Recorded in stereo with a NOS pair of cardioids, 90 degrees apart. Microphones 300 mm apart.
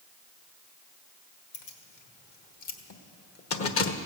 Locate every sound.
1.5 s keys jangling: 70° left, 2 m; by 4.0 s 40° left, 1.0 m